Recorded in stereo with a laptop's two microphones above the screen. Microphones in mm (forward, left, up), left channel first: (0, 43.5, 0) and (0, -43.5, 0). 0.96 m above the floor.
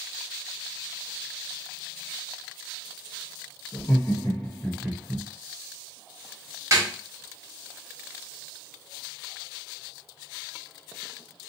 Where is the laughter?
40° left (ahead or behind), 0.8 m; by 5.2 s 30° right (ahead or behind), 0.7 m.